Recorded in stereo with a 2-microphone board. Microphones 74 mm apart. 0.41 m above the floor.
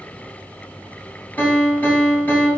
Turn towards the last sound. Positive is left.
turn(degrees=25)  # may be behind; listen again after turning